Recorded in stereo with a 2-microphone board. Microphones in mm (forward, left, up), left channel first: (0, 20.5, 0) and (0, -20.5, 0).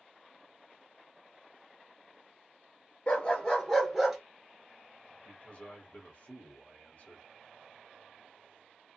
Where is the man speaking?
35° left (ahead or behind), 1.3 m.